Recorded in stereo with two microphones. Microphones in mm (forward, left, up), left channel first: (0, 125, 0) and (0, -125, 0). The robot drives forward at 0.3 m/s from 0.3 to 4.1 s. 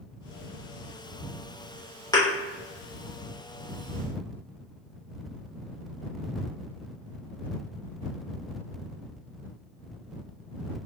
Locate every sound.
2.1 s a thud: 15° left (ahead or behind), 0.9 m